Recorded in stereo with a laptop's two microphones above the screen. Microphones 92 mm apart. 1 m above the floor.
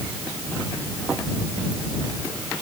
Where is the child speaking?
No child speaking in this recording.